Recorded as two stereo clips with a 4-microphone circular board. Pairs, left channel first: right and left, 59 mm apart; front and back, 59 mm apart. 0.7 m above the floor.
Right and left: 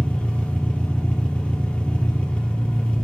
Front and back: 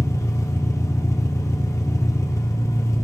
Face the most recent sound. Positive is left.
turn(degrees=-20)